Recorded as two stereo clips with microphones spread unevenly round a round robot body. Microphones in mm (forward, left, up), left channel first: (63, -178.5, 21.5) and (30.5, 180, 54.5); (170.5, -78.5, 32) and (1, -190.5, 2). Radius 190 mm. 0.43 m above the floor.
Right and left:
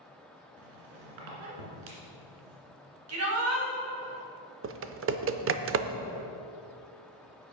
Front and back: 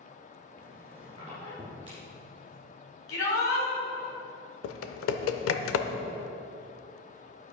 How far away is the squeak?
About 2 m.